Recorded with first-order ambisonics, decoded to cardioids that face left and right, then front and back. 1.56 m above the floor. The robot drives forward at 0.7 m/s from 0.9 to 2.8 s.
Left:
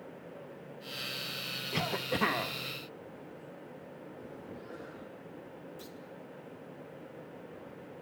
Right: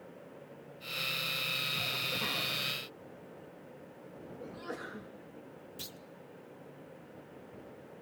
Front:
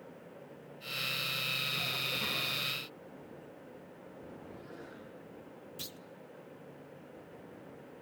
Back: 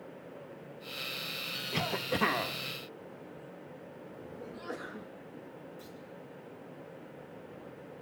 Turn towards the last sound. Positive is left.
turn(degrees=-35)